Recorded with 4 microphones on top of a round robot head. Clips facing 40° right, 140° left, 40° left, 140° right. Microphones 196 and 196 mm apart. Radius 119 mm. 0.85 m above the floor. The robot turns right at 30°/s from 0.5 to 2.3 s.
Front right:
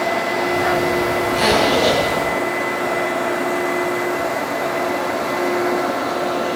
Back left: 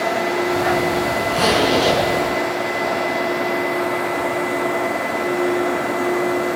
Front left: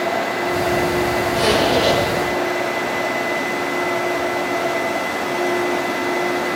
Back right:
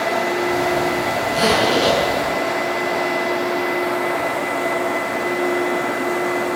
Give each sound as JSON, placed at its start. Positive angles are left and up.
{"t": 1.3, "sound": "a zipper", "azimuth_deg": 170, "distance_m": 8.0}